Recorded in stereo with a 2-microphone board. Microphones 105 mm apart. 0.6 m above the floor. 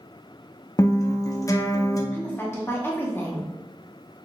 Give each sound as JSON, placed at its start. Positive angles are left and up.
{"t": 0.8, "sound": "a guitar", "side_deg": 30, "distance_m": 0.6}
{"t": 2.1, "sound": "a woman speaking", "side_deg": 20, "distance_m": 0.8}